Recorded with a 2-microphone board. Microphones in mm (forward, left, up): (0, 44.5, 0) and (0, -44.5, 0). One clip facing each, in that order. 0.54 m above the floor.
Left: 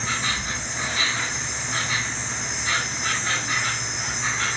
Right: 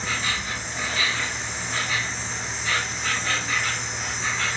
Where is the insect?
20° left (ahead or behind), 1.2 m.